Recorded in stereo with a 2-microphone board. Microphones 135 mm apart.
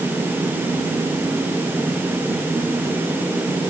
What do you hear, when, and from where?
Only background noise.